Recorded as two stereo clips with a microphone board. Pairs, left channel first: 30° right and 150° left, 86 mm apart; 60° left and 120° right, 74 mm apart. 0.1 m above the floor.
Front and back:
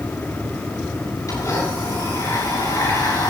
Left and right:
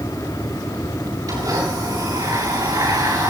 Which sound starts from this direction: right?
A blender, at 1.3 s.